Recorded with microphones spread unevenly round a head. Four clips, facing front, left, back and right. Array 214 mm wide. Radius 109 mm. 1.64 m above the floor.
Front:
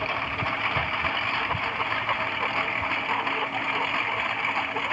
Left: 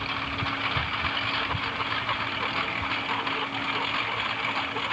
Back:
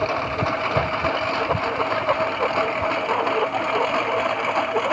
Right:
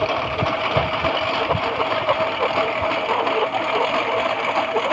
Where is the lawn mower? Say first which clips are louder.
Right 11 dB, back 6 dB; 120° right; by 4.9 s 125° right.